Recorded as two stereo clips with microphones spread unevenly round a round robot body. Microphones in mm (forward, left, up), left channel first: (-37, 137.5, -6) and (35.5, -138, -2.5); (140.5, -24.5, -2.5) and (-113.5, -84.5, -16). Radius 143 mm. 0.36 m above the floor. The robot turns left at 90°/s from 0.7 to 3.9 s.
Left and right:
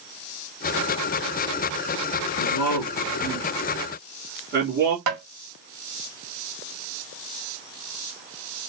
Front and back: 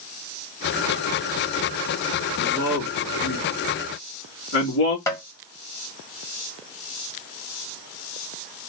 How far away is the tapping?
About 1.8 m.